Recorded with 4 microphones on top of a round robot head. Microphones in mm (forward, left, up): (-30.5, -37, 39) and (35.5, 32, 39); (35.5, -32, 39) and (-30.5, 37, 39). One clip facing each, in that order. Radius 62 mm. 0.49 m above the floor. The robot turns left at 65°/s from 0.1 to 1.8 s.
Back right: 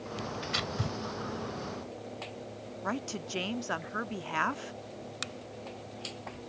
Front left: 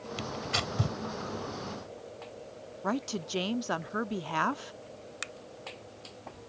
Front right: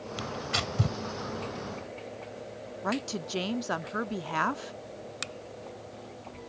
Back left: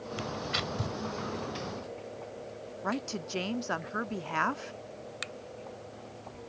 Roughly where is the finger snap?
Right.